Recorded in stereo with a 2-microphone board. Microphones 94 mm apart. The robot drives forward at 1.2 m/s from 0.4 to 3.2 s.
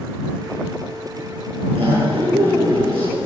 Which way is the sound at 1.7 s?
80° right.